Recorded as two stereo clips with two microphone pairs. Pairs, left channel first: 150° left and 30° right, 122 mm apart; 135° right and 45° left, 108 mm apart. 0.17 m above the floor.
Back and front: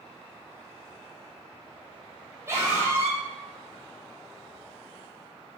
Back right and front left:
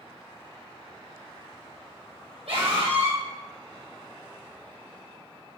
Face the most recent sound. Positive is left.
turn(degrees=35)